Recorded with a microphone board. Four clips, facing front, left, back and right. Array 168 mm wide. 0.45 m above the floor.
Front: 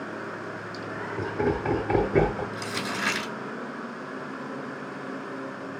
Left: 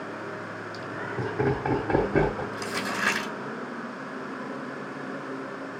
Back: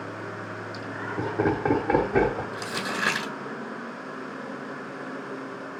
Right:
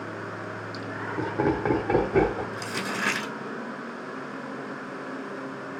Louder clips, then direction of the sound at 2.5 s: Left 1 dB, back 1 dB; straight behind.